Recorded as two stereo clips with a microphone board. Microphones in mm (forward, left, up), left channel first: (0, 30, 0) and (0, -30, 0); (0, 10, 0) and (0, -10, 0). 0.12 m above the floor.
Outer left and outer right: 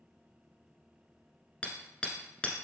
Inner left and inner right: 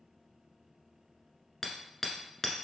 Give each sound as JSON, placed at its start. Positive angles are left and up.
{"t": 1.6, "sound": "hammering", "side_deg": 20, "distance_m": 1.1}